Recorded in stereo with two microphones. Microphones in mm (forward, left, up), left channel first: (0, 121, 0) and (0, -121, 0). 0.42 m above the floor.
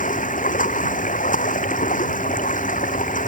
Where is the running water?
35° left (ahead or behind).